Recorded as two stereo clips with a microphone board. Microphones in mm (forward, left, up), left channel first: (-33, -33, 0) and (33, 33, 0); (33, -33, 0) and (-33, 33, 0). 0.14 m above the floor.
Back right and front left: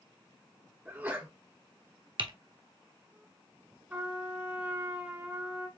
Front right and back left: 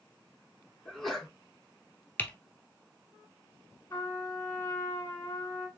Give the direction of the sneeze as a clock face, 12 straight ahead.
11 o'clock.